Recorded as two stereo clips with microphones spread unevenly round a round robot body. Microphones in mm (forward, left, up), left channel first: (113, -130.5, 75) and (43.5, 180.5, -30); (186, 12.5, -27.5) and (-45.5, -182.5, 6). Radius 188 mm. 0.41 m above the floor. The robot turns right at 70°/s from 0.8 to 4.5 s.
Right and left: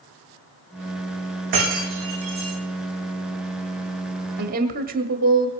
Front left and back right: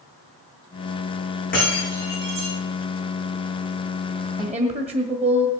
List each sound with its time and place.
1.5 s breaking glass: 110° left, 8.5 m; by 2.5 s straight behind, 8.5 m
4.4 s a woman speaking: 140° left, 1.6 m; by 5.5 s 145° left, 1.6 m